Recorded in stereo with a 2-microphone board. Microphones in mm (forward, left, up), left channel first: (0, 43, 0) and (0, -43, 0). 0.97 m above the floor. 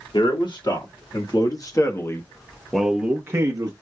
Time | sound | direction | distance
0.1 | a man speaking | 65° left (ahead or behind) | 1.8 m